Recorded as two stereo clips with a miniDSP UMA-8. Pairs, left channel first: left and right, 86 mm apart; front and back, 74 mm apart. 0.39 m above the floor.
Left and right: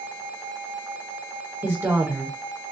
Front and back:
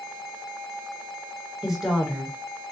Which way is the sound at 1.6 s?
105° right.